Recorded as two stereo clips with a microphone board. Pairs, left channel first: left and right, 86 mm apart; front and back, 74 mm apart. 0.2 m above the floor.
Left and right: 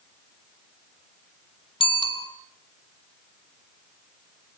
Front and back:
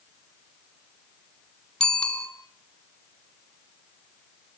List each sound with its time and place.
1.8 s a bicycle bell: 75° left, 2 m